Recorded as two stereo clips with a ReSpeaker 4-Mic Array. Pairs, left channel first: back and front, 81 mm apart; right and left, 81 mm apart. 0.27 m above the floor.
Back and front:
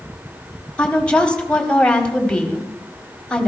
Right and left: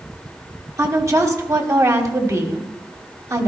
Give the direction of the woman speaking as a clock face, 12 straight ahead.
8 o'clock.